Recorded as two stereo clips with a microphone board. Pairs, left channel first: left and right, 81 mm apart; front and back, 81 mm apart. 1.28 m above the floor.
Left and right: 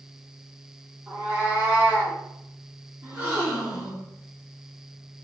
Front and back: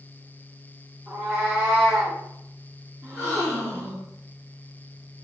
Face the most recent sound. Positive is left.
turn(degrees=-145)